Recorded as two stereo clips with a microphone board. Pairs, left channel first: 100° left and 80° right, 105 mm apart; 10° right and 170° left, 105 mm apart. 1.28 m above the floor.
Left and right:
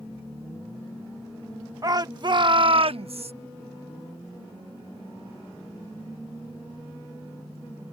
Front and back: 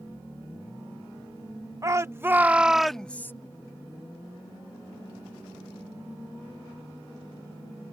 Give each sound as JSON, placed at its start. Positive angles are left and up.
{"t": 1.8, "sound": "a shout", "azimuth_deg": -130}